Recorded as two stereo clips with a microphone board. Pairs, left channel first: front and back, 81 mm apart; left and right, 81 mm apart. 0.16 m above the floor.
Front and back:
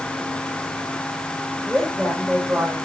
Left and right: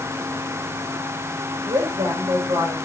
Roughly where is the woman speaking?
Right.